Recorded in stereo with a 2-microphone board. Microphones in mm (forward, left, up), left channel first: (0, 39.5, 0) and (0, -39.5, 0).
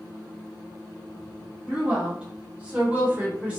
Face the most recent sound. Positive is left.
turn(degrees=-20)  # may be behind; listen again after turning